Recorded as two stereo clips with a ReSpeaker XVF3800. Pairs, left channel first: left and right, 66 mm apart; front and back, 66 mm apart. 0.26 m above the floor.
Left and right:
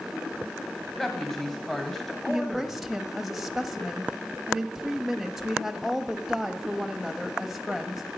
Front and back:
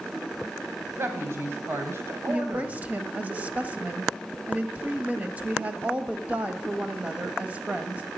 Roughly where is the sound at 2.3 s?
Behind.